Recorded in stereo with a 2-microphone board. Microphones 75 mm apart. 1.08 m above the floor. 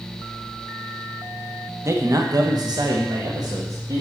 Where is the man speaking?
40° right (ahead or behind), 1.2 m; by 4.0 s 50° right (ahead or behind), 2.0 m.